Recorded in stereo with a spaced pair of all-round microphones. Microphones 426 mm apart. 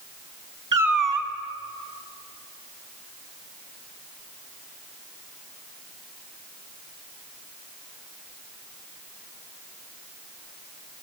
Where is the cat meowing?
45° right (ahead or behind), 1.4 m.